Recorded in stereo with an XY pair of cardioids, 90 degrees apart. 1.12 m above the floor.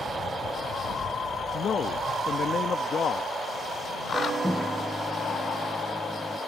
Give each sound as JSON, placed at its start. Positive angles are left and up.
{"t": 1.5, "sound": "a man speaking", "azimuth_deg": 55}
{"t": 4.4, "sound": "a microwave", "azimuth_deg": 5}